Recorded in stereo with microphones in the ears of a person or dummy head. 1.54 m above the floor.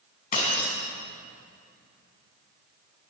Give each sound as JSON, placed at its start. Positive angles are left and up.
{"t": 0.3, "sound": "breaking glass", "side_deg": 45, "distance_m": 5.0}